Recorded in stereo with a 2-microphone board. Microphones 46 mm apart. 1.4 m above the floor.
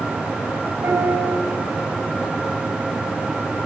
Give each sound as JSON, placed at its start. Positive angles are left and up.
{"t": 0.8, "sound": "a piano", "side_deg": -85, "distance_m": 8.0}